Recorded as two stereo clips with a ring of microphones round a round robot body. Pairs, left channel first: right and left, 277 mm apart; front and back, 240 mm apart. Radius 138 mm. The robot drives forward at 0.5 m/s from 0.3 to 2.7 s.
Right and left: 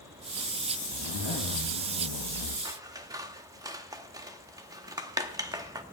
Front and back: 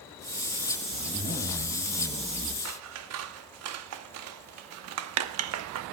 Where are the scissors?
165° left, 0.9 m; by 5.8 s 170° left, 0.9 m.